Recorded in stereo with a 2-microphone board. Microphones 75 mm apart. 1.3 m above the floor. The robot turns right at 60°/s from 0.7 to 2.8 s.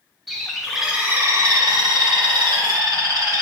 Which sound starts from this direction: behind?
A bird, at 0.3 s.